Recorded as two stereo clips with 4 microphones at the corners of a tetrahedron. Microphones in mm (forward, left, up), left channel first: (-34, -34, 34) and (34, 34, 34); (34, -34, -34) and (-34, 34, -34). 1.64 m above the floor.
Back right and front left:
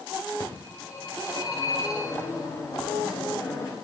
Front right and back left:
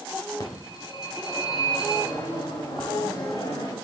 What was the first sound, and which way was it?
A phone ringing, 85° right.